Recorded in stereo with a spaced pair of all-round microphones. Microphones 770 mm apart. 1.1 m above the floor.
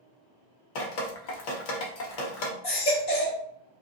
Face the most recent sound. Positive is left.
turn(degrees=55)  # may be behind; listen again after turning